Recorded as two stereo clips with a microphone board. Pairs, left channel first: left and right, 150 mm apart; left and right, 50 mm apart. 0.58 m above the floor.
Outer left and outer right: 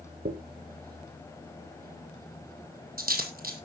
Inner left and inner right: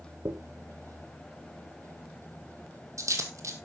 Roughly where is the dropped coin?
Right.